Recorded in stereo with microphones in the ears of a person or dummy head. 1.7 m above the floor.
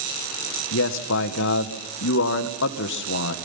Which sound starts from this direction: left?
A man speaking, at 0.7 s.